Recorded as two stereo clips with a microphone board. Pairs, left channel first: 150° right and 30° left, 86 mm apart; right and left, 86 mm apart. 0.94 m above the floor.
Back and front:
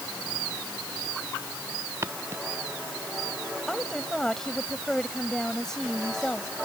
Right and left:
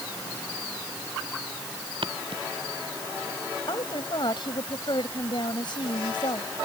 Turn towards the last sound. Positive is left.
turn(degrees=-65)